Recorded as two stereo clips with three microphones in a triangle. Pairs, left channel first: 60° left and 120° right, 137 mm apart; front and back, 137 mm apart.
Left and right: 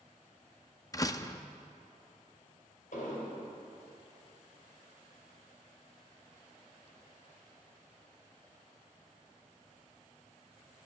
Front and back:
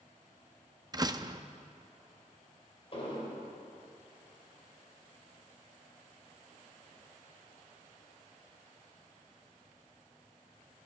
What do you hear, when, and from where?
0.9 s a door slam: 120° left, 0.6 m
2.9 s an explosion: 45° left, 4 m